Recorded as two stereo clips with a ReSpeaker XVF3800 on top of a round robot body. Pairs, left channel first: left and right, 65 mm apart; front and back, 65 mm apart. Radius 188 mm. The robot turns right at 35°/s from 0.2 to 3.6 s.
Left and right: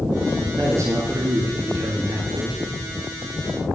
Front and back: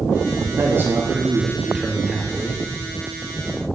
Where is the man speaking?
135° right, 1.9 m; by 2.6 s 60° right, 1.9 m.